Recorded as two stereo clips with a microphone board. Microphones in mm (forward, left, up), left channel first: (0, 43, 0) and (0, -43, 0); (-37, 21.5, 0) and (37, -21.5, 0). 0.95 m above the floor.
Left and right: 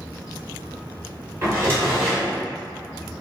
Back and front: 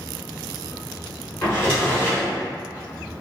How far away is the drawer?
About 1.5 m.